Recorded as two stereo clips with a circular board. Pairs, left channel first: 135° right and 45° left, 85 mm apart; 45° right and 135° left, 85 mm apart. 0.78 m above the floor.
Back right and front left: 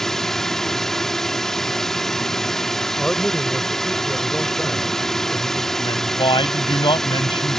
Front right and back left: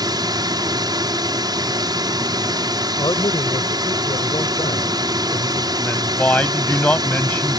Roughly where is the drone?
Behind left.